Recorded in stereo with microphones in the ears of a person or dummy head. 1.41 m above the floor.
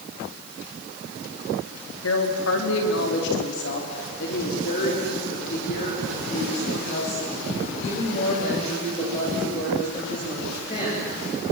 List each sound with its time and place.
2.0 s a woman speaking: 80° left, 3.5 m; by 11.1 s 30° left (ahead or behind), 9 m